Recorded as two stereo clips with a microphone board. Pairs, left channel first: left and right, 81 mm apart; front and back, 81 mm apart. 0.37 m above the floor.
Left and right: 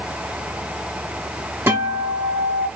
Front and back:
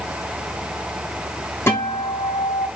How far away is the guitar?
About 1.3 m.